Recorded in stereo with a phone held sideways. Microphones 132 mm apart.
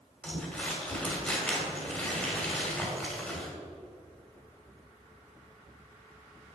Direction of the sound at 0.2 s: 10° left (ahead or behind).